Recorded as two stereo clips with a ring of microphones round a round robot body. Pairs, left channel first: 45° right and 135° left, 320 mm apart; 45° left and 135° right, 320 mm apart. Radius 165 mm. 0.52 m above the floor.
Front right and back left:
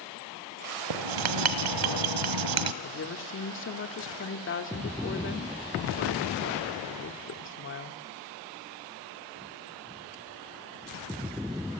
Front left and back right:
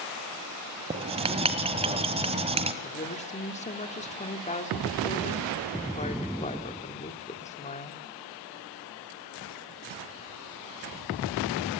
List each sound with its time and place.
0.9 s writing: 155° left, 1.6 m
2.8 s a woman speaking: 15° right, 1.8 m